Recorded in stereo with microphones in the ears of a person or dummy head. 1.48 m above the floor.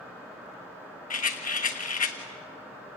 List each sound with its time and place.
1.1 s a rattle: 40° left (ahead or behind), 1.2 m